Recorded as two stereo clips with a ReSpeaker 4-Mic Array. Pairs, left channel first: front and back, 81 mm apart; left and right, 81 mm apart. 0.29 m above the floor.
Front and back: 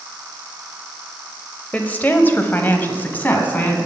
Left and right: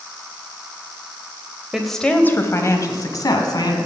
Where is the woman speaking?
20° right, 0.9 m; by 3.8 s 65° left, 2 m.